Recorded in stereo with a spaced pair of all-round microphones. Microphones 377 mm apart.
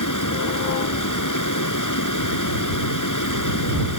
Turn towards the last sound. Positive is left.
turn(degrees=55)  # may be behind; listen again after turning